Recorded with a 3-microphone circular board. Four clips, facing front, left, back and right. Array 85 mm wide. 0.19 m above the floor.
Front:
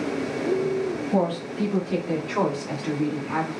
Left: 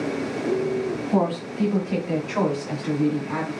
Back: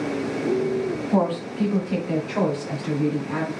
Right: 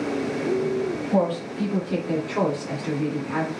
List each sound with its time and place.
1.1 s a woman speaking: 150° left, 1.8 m; by 3.5 s 10° left, 1.7 m